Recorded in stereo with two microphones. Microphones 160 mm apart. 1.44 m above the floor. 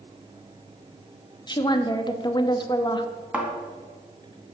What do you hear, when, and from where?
1.5 s a woman speaking: 25° left (ahead or behind), 0.8 m
3.3 s a thud: 10° right (ahead or behind), 2 m